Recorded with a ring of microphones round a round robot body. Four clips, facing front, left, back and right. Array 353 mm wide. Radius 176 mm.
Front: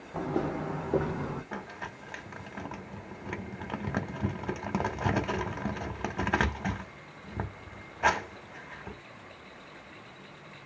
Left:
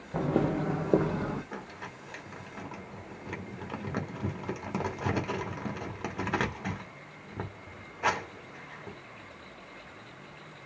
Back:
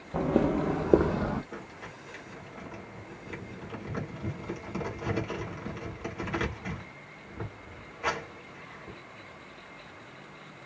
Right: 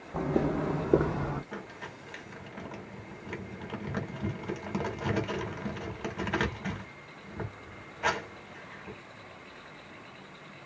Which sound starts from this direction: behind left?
Footsteps, at 0.1 s.